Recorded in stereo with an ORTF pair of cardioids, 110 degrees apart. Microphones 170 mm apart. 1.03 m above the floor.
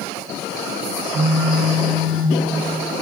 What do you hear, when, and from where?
1.1 s a phone buzzing: 55° right, 7.5 m